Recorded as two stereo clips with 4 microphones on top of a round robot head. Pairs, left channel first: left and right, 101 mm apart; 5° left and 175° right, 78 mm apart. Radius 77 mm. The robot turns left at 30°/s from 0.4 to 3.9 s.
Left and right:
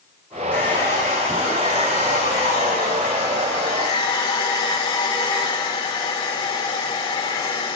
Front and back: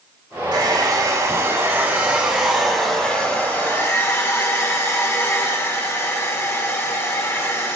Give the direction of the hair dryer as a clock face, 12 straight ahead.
7 o'clock.